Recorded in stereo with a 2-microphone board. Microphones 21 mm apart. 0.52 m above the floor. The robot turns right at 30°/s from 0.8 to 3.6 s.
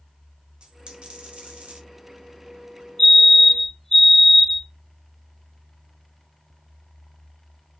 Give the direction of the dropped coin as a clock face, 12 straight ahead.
4 o'clock.